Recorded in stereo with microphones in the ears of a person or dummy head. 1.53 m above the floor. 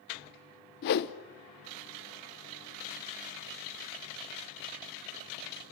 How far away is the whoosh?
About 1.0 m.